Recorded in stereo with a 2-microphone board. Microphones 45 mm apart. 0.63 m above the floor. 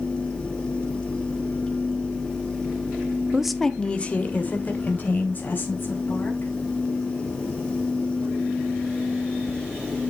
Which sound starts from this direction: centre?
A woman speaking, at 3.3 s.